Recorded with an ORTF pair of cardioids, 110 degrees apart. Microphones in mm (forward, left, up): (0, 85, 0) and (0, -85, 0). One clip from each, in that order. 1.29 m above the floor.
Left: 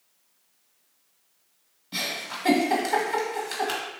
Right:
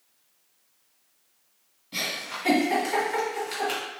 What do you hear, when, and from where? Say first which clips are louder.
1.9 s a giggle: even; 25° left, 1.5 m